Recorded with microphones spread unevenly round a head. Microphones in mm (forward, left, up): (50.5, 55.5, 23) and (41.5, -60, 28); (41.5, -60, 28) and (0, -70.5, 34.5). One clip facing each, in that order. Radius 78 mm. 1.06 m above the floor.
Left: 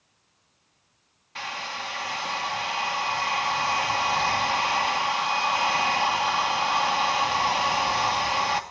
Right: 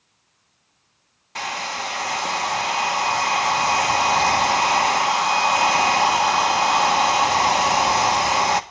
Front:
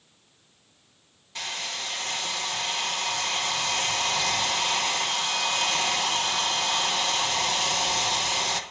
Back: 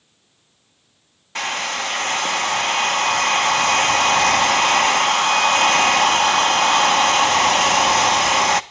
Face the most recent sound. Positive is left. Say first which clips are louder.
# right 6 dB, back 10 dB
turn(degrees=-140)